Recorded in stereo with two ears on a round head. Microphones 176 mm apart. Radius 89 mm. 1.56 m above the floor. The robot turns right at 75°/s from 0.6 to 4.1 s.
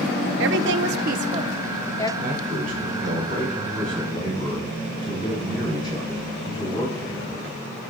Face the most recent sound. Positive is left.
turn(degrees=20)